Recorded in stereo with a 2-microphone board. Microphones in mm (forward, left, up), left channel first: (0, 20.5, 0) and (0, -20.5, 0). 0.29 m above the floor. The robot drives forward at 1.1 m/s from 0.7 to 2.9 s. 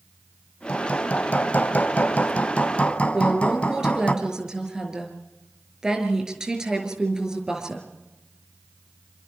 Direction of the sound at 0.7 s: 35° left (ahead or behind).